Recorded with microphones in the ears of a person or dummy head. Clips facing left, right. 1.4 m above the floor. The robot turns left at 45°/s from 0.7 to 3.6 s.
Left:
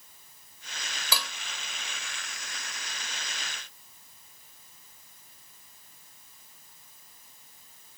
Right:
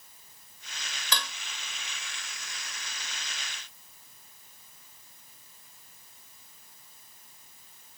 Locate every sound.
1.1 s dishes clattering: 15° left (ahead or behind); by 1.3 s 5° left (ahead or behind)